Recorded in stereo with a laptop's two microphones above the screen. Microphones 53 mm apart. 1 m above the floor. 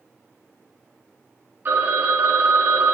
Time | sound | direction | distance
1.6 | a phone ringing | 40° right (ahead or behind) | 1.3 m